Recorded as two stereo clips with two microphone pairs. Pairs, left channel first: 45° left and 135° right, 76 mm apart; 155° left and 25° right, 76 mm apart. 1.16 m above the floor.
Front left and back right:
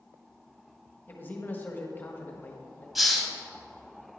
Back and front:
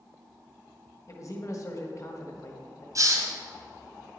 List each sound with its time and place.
1.1 s a man speaking: 110° left, 1.4 m
3.0 s a hiss: 45° right, 1.5 m